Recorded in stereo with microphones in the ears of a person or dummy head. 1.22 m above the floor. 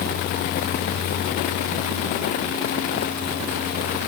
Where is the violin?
No violin in this recording.